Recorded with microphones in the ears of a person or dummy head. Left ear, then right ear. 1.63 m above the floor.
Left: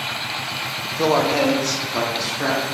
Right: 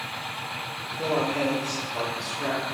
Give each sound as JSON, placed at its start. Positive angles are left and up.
{"t": 0.8, "sound": "a man speaking", "side_deg": 75, "distance_m": 0.6}